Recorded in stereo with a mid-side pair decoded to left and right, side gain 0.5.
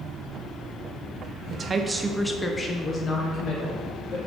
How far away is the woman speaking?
About 0.7 m.